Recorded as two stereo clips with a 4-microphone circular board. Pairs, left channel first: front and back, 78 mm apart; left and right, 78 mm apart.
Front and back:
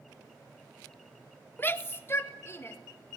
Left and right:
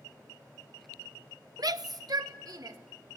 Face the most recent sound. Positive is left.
turn(degrees=-55)